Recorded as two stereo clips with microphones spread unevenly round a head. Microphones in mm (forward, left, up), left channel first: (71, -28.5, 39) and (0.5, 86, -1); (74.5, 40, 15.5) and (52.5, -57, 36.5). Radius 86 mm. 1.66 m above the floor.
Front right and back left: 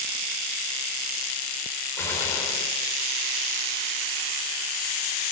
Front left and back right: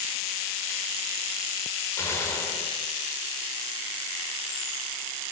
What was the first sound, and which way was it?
A gunshot, 10° left.